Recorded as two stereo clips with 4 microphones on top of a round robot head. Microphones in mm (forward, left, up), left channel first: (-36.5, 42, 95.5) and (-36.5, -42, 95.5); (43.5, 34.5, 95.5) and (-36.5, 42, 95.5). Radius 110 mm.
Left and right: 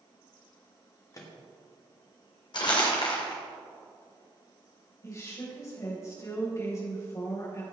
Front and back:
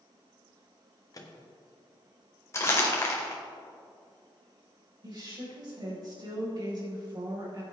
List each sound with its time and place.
1.1 s a microwave: 40° left, 1.4 m
2.5 s crumpling: 50° left, 2 m
5.0 s a woman speaking: 140° left, 4.5 m